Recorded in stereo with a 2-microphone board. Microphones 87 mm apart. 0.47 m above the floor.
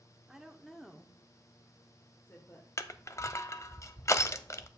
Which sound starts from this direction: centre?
A woman speaking, at 0.3 s.